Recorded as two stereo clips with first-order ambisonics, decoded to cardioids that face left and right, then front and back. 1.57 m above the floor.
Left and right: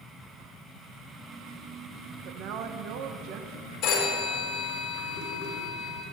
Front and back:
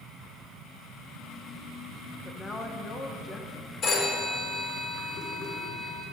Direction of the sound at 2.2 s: 70° right.